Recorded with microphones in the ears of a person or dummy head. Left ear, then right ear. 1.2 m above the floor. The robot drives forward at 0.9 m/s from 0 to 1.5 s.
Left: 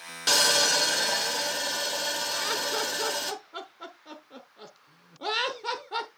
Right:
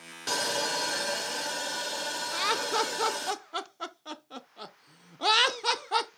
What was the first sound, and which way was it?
Sawing, 25° left (ahead or behind).